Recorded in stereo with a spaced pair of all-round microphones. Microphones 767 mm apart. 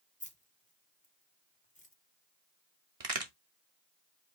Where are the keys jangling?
10° left (ahead or behind), 0.8 m.